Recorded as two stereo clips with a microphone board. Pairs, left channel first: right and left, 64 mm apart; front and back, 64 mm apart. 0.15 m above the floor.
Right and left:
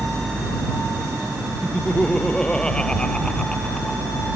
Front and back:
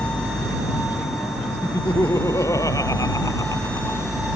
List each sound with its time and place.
1.6 s laughter: 15° right